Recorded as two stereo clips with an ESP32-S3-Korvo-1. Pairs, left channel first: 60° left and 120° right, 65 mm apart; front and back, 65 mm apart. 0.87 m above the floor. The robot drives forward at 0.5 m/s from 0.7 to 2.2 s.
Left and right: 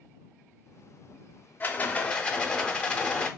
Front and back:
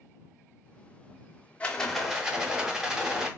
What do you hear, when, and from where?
1.6 s a rattle: 50° left, 0.6 m; by 3.3 s 110° left, 0.6 m